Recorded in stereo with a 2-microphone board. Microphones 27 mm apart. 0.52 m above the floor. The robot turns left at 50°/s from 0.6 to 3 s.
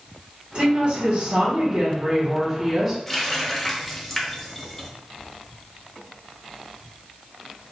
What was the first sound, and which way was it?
A woman speaking, 65° right.